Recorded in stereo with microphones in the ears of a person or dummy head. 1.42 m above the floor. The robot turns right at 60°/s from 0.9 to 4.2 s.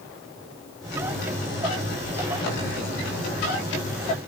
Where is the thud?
I don't hear a thud.